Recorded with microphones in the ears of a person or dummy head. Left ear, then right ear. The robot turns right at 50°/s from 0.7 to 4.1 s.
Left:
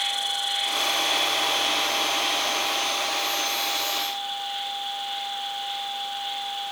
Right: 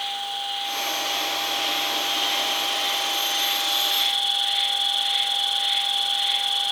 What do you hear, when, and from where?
0.0 s an insect: 115° left, 2.5 m; by 6.7 s 75° right, 2.5 m